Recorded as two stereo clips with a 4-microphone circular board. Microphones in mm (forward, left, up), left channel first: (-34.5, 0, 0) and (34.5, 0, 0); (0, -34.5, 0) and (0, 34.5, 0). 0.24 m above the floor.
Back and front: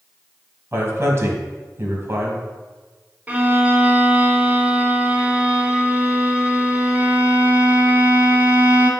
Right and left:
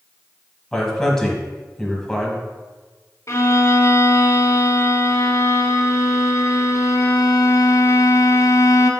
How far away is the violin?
About 0.8 m.